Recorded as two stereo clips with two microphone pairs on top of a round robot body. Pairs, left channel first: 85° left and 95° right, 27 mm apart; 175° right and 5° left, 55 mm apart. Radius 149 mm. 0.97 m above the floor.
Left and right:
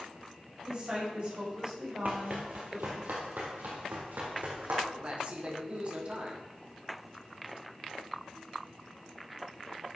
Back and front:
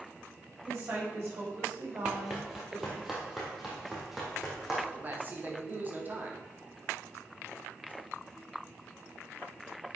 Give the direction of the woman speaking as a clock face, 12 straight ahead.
1 o'clock.